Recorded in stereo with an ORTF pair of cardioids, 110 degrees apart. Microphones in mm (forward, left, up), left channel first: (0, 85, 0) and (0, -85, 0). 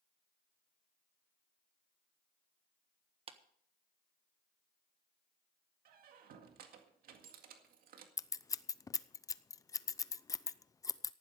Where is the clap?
35° right, 1.4 m.